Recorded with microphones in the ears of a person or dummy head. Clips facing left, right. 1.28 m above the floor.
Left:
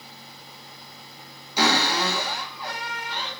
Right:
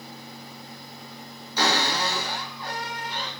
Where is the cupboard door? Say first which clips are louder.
Left 2 dB; 10° left (ahead or behind), 1.2 m.